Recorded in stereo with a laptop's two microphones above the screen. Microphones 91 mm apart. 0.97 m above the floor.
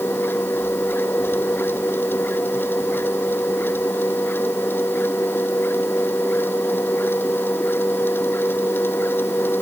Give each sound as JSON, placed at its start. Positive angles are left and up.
{"t": 0.0, "sound": "a machine running", "side_deg": 25}